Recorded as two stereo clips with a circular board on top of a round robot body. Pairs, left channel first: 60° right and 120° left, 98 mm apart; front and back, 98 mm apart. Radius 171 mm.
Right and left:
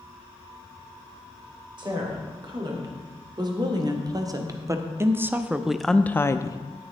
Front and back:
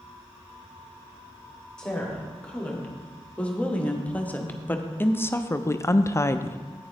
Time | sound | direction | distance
1.8 | a woman speaking | 80° left | 2.5 m